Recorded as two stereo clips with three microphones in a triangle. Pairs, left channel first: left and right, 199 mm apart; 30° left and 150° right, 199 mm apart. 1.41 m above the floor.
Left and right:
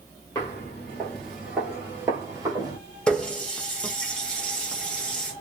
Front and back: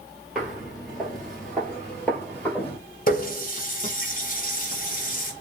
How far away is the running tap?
About 0.8 m.